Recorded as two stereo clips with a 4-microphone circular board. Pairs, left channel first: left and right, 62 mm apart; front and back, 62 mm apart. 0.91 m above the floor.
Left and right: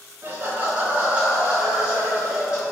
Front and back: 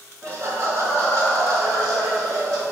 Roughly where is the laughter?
Behind right.